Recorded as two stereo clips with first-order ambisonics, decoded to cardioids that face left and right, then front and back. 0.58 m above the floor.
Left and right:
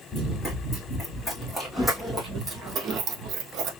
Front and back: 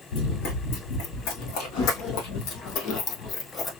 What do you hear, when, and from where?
0.1 s running footsteps: 10° left, 2.5 m; by 3.7 s 65° right, 1.1 m